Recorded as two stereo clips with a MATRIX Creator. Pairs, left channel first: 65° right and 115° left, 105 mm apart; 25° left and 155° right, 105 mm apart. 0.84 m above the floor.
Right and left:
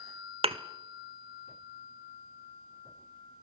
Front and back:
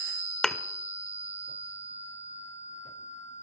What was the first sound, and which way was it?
A thud, 105° left.